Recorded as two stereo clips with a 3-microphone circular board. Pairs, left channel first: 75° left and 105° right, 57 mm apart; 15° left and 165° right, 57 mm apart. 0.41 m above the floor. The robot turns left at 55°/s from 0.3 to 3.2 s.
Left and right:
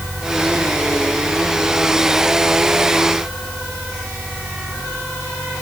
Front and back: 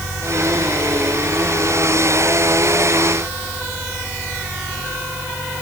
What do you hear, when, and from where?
Only background noise.